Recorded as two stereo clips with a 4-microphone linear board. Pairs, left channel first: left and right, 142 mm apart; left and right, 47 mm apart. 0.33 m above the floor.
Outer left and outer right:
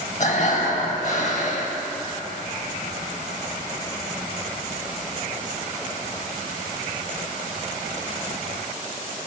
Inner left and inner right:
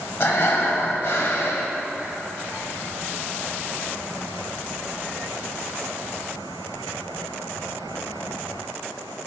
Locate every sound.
0.2 s breathing: 55° left (ahead or behind), 0.6 m